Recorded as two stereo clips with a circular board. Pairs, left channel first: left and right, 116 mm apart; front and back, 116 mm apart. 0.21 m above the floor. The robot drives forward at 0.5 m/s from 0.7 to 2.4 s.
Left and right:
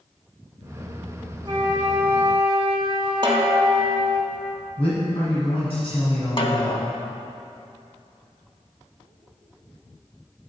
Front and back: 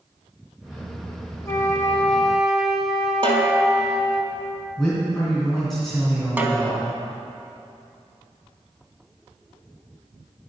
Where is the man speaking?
85° left, 2 m.